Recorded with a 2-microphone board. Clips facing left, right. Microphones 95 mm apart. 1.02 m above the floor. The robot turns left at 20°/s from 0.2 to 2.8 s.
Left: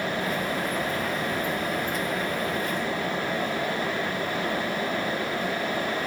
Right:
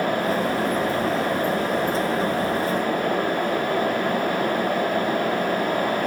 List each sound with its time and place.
Only background noise.